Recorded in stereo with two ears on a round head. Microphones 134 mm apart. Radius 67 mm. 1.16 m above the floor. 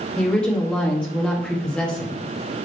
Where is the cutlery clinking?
No cutlery clinking in this recording.